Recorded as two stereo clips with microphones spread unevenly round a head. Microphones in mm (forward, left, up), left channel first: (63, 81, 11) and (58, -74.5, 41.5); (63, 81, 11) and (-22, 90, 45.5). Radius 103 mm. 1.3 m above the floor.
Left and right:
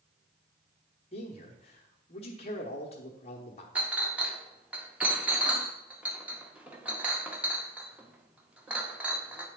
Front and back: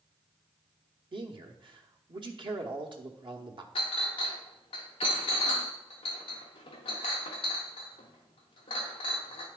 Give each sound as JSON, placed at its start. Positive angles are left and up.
{"t": 1.1, "sound": "a man speaking", "azimuth_deg": 140, "distance_m": 0.9}
{"t": 3.8, "sound": "a clink", "azimuth_deg": -35, "distance_m": 0.7}